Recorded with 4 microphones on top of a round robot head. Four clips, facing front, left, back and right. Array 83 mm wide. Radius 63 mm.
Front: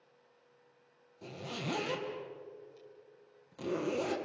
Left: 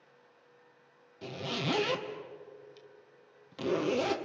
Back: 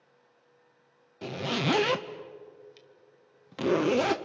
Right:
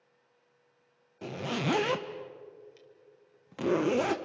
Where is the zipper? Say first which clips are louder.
Right 3 dB, back 11 dB; 155° right, 0.8 m.